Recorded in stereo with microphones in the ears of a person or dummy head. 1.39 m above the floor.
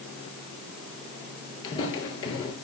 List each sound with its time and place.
1.6 s footsteps: 30° left (ahead or behind), 1.5 m